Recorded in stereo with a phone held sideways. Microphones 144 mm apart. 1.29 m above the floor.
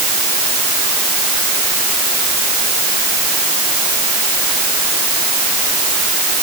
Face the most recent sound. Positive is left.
No sound to turn to.